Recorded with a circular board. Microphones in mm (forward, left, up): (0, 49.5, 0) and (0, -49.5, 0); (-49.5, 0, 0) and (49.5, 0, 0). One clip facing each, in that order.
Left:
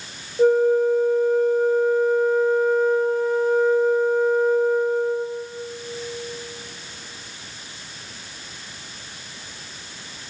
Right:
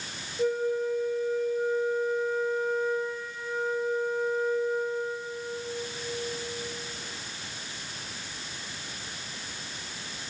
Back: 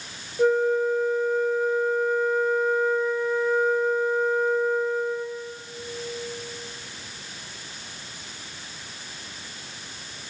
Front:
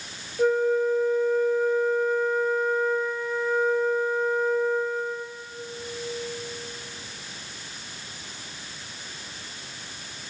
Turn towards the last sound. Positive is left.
turn(degrees=95)